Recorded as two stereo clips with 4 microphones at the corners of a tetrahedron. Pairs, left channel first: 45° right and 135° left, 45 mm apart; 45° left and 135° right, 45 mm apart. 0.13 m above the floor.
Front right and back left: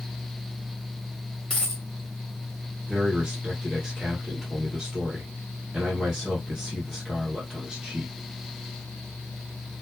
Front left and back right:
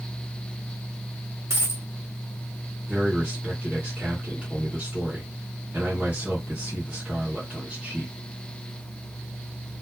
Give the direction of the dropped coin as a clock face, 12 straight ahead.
4 o'clock.